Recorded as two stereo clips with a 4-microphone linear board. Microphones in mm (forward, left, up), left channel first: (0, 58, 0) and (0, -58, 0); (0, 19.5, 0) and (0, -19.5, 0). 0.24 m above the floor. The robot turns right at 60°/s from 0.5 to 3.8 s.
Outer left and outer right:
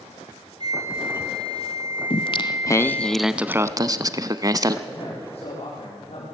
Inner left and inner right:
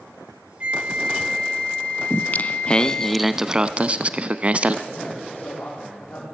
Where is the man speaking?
55° left (ahead or behind), 9 m.